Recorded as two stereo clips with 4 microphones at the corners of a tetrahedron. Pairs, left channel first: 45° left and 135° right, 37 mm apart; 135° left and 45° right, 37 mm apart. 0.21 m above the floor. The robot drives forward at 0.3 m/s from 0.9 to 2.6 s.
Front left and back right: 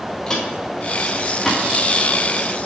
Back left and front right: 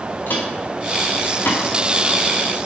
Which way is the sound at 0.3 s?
120° left.